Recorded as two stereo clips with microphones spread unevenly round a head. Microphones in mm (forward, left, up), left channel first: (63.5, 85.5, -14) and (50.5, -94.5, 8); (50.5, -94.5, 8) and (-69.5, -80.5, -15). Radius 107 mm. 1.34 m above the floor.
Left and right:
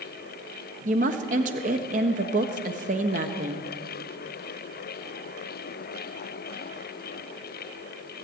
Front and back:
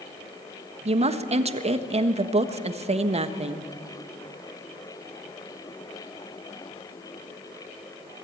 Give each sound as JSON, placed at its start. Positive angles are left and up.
{"t": 0.8, "sound": "a woman speaking", "azimuth_deg": -150, "distance_m": 1.4}